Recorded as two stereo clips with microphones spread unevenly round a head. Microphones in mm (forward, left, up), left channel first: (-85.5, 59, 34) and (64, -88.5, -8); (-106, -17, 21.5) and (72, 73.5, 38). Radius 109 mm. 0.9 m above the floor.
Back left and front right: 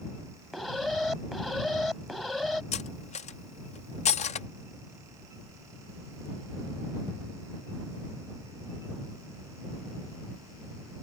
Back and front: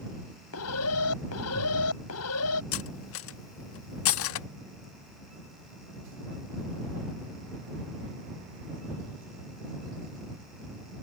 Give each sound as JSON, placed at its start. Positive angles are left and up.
{"t": 0.5, "sound": "an alarm", "azimuth_deg": -135}
{"t": 2.7, "sound": "cutlery clinking", "azimuth_deg": -165}